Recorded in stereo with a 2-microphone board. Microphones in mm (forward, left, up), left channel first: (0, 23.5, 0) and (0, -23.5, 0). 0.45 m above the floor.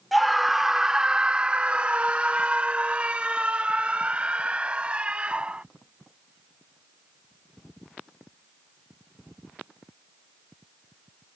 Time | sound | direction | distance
0.1 | a scream | centre (ahead or behind) | ?